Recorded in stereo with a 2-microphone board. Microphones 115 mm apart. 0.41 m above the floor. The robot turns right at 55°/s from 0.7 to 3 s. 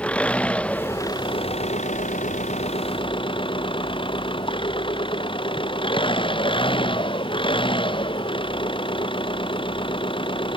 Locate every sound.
0.0 s an engine running: 10° left; by 10.6 s 135° left